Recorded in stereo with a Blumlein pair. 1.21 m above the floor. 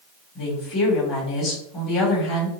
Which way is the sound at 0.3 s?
35° left.